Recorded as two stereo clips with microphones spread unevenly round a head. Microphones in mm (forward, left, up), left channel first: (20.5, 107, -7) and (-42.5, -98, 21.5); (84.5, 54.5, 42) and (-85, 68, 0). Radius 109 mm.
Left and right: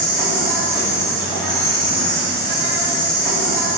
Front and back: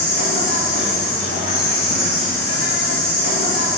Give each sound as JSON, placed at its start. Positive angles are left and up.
{"t": 0.0, "sound": "an insect", "azimuth_deg": -25, "distance_m": 3.5}